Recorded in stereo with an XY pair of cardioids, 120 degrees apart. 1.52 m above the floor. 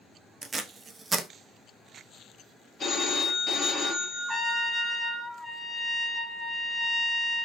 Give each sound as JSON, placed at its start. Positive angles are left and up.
{"t": 0.4, "sound": "tape being pulled", "azimuth_deg": -30, "distance_m": 0.5}
{"t": 2.8, "sound": "a phone ringing", "azimuth_deg": 30, "distance_m": 1.1}
{"t": 4.3, "sound": "a trumpet", "azimuth_deg": 5, "distance_m": 0.7}